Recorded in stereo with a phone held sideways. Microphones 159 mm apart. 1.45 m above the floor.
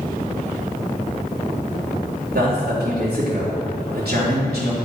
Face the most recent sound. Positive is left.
turn(degrees=-90)